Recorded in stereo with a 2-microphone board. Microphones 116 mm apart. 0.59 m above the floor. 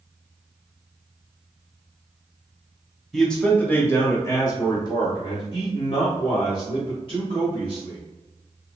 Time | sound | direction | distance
3.1 | a man speaking | 5° left (ahead or behind) | 1.1 m